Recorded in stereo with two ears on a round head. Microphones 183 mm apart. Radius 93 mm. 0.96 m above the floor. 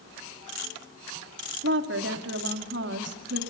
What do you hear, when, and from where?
1.6 s a woman speaking: 55° right (ahead or behind), 2.5 m